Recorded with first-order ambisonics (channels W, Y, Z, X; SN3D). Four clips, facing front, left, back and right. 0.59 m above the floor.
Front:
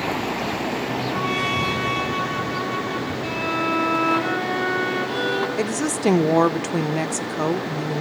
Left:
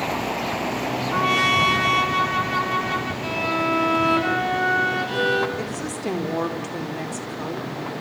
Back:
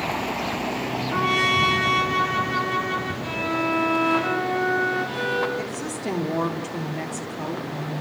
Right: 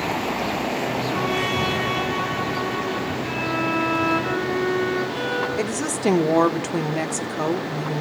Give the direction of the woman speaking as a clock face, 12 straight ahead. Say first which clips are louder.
Right 4 dB, front 7 dB; 1 o'clock.